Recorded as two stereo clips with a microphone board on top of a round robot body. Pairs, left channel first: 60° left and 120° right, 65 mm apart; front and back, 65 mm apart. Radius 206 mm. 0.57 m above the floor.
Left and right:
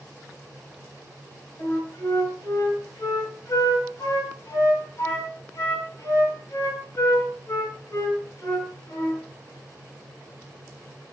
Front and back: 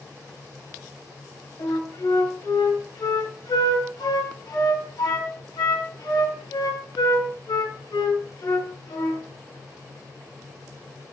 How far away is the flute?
About 4 m.